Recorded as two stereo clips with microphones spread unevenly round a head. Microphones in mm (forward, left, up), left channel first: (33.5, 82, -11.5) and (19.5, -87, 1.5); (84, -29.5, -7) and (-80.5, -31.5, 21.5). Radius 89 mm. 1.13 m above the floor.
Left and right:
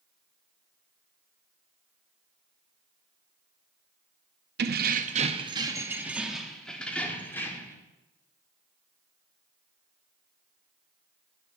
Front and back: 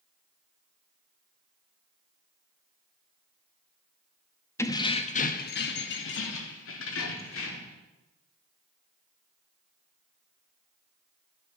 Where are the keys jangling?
80° right, 0.8 m; by 7.7 s 10° left, 1.9 m.